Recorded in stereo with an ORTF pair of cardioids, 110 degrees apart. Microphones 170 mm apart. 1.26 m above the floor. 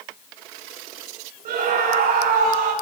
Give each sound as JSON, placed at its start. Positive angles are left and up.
{"t": 1.4, "sound": "a scream", "azimuth_deg": -60, "distance_m": 8.0}